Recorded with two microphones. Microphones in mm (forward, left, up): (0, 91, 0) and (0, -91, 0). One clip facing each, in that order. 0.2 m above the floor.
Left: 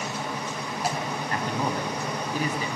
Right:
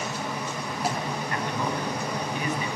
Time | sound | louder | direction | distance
1.3 | a man speaking | left 2 dB | 35° left (ahead or behind) | 1.1 m